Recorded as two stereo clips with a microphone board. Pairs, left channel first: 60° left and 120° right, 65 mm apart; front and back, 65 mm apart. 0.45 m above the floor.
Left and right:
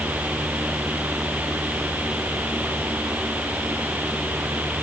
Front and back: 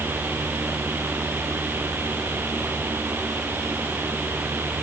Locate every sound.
Only background noise.